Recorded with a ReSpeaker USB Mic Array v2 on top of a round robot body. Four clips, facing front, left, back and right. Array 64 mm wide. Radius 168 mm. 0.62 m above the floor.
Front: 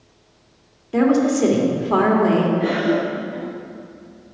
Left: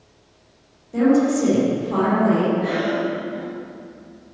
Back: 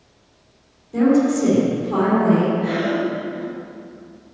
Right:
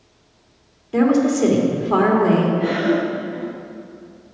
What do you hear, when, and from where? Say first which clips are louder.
0.9 s a woman speaking: right 1 dB, even; 40° right, 2.5 m
2.6 s a cough: right 3 dB, front 2 dB; 30° right, 1.7 m